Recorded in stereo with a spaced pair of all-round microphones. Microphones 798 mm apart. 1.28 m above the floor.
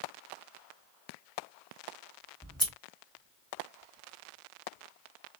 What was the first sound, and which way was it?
Scissors, 5° left (ahead or behind).